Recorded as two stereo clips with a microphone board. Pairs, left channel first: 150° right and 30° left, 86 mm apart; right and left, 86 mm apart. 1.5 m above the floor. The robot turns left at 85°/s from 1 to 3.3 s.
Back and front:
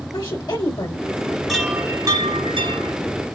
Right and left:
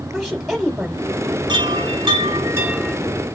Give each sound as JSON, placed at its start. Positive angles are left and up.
{"t": 0.1, "sound": "a woman speaking", "azimuth_deg": 175, "distance_m": 1.2}
{"t": 1.5, "sound": "a chime", "azimuth_deg": 125, "distance_m": 1.2}